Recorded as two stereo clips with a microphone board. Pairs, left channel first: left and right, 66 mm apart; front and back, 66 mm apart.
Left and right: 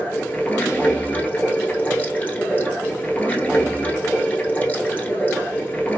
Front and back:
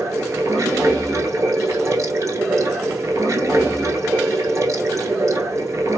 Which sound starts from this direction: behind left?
Running water, at 0.0 s.